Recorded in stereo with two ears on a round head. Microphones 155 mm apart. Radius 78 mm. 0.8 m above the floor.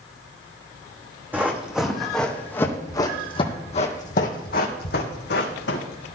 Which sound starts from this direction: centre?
Running footsteps, at 1.3 s.